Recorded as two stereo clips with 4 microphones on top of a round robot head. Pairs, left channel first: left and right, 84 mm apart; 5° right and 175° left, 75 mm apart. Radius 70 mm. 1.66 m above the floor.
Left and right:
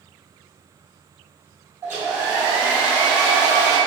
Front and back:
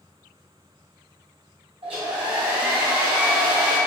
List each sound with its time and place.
1.8 s a hair dryer: 145° right, 0.7 m